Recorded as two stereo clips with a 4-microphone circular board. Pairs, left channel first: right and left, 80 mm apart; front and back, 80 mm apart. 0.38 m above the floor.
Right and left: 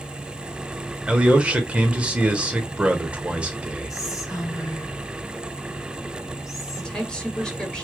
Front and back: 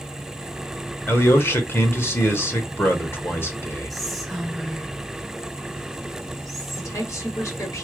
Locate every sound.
1.1 s a man speaking: 30° left, 0.9 m
3.9 s whispering: 85° right, 1.2 m
6.8 s a woman speaking: 15° right, 1.4 m